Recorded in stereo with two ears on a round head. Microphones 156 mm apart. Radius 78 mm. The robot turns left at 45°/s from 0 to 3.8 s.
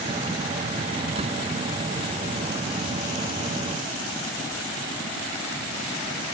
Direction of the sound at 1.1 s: 30° right (ahead or behind).